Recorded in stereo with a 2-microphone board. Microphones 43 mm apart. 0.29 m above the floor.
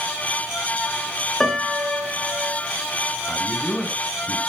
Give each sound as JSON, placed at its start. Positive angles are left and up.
{"t": 1.4, "sound": "a piano", "side_deg": 15, "distance_m": 1.9}
{"t": 3.3, "sound": "a man speaking", "side_deg": 30, "distance_m": 2.5}